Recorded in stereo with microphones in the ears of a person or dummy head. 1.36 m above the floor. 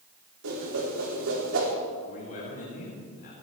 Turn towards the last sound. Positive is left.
turn(degrees=50)  # may be behind; listen again after turning